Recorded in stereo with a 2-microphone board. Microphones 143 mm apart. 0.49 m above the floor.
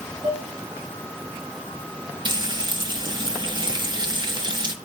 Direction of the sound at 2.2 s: 35° right (ahead or behind).